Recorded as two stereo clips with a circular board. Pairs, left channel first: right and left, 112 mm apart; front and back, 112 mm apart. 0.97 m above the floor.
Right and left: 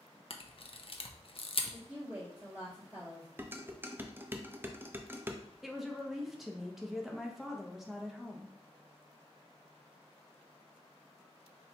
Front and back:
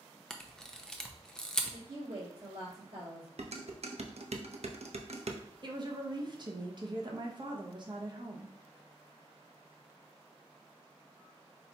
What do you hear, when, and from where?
0.3 s a camera shutter: 80° right, 0.5 m
1.7 s a woman speaking: 170° left, 2 m
3.4 s dishes clattering: 160° left, 0.5 m
5.6 s a woman speaking: straight behind, 0.8 m